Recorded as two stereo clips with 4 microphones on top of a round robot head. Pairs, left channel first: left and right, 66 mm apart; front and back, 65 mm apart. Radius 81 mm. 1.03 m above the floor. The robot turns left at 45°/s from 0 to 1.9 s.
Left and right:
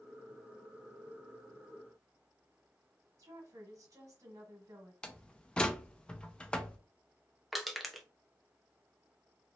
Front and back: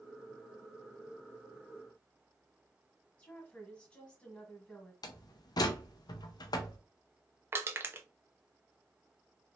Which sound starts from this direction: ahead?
A door slam, at 5.0 s.